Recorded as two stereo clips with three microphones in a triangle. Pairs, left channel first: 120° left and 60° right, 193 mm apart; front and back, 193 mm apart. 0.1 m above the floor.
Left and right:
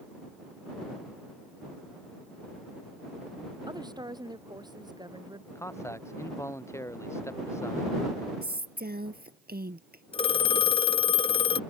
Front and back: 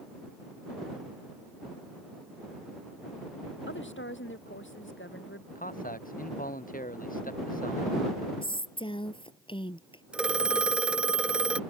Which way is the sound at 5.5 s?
45° left.